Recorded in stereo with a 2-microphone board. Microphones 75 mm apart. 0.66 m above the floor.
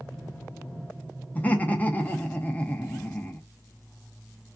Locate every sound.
1.4 s laughter: 20° left (ahead or behind), 0.7 m